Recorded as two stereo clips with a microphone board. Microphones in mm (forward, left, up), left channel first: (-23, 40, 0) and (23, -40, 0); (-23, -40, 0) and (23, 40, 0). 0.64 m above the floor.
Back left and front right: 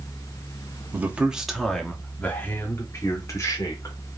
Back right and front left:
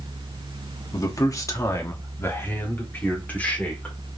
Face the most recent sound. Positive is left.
turn(degrees=165)